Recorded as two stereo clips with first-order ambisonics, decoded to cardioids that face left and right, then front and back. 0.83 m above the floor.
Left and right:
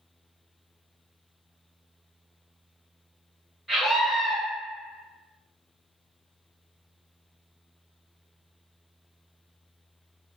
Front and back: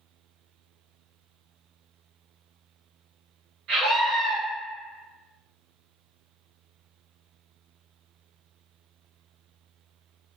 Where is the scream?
175° right, 1.0 m.